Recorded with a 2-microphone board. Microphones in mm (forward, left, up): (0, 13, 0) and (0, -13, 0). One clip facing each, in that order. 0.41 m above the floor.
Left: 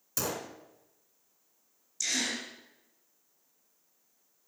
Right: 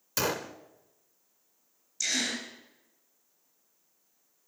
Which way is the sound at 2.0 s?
10° right (ahead or behind).